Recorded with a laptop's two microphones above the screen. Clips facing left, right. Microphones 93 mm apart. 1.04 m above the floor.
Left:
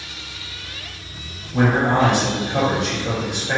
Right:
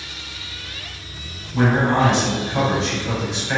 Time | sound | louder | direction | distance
1.5 | a man speaking | even | 55° left (ahead or behind) | 3 m